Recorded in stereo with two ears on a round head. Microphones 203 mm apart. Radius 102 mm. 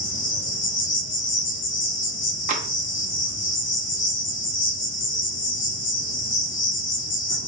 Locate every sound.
0.0 s an insect: 60° left (ahead or behind), 1.2 m
2.5 s tapping: 35° right (ahead or behind), 0.5 m